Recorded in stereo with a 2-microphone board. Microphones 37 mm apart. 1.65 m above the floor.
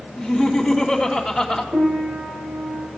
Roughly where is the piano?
Right.